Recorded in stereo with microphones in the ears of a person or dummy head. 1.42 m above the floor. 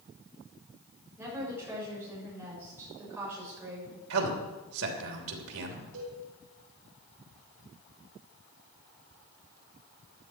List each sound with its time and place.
1.2 s a woman speaking: 10° right (ahead or behind), 7 m
4.1 s a man speaking: 85° right, 3 m
5.9 s a cowbell: 80° right, 6.5 m